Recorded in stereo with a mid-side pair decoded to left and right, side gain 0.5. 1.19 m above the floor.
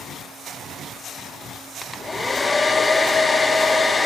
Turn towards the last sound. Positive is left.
turn(degrees=25)